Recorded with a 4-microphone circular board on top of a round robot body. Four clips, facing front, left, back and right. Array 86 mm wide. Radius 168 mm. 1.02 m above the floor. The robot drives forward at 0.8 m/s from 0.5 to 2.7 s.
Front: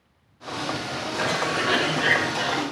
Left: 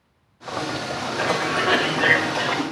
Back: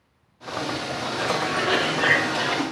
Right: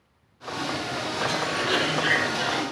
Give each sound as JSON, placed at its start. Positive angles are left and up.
{"t": 1.2, "sound": "a cough", "azimuth_deg": 75, "distance_m": 1.7}